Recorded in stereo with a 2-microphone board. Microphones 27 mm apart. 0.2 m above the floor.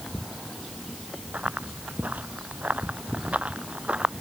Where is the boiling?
I don't hear boiling.